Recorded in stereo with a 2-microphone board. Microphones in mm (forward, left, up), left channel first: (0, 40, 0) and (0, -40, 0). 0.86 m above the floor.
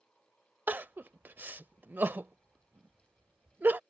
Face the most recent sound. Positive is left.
turn(degrees=-25)  # may be behind; listen again after turning